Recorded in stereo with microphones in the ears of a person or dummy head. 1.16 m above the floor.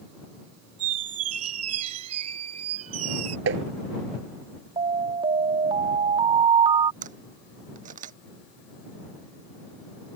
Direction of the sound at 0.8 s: 40° right (ahead or behind).